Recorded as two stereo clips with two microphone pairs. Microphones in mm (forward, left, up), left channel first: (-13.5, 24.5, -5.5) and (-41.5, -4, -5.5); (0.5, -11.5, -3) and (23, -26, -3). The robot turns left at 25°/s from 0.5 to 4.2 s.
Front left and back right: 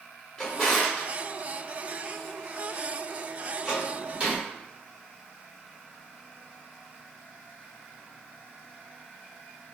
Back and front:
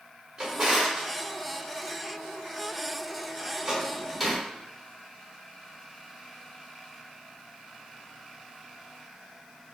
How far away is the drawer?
About 1.2 m.